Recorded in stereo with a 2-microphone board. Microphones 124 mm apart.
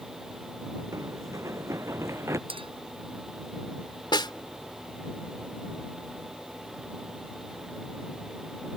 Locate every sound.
0.9 s running footsteps: 25° right (ahead or behind); by 2.4 s 20° right (ahead or behind)
2.5 s a clink: 45° right (ahead or behind)
4.1 s a snare drum: 40° left (ahead or behind)